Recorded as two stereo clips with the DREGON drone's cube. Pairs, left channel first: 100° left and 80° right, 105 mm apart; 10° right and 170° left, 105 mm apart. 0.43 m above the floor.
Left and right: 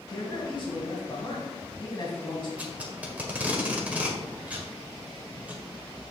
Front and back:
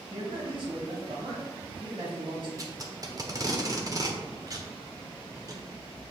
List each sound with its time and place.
0.1 s a man speaking: 135° left, 3 m
2.6 s tape being pulled: 150° right, 1.1 m